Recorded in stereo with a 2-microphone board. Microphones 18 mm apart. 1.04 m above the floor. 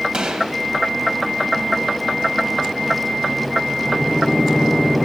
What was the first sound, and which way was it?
A gunshot, 70° right (ahead or behind).